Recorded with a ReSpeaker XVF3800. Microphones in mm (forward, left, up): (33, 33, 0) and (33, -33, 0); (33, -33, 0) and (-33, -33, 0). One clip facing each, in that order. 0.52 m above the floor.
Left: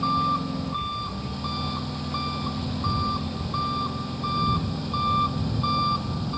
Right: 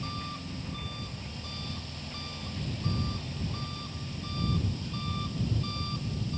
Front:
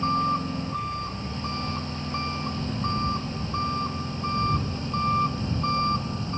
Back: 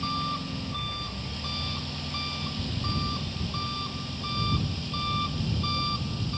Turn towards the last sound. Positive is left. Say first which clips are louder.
# left 15 dB, front 7 dB
turn(degrees=60)